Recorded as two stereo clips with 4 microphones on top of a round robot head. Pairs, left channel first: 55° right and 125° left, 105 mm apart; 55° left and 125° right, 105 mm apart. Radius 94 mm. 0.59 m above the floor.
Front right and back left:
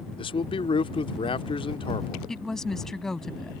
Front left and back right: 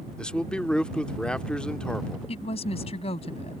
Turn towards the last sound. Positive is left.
turn(degrees=35)